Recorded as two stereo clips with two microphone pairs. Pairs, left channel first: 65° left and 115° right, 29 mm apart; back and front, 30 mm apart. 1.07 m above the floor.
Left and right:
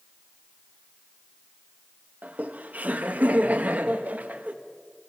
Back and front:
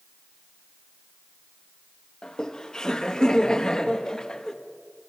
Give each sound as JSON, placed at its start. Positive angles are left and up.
{"t": 2.2, "sound": "laughter", "azimuth_deg": -115, "distance_m": 1.7}